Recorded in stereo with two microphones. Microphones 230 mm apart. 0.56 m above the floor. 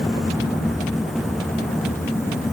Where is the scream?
No scream in this recording.